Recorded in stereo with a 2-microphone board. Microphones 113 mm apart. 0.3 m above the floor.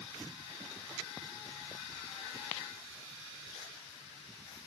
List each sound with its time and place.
Only background noise.